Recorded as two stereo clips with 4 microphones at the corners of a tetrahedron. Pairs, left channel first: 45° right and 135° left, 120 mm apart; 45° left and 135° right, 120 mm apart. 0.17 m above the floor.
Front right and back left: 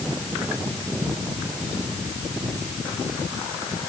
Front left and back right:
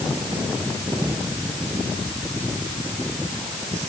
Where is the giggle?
I don't hear a giggle.